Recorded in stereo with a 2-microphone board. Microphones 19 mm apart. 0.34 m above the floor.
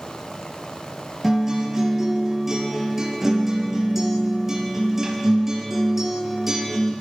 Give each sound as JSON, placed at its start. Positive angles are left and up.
{"t": 1.2, "sound": "a guitar", "side_deg": -20, "distance_m": 4.5}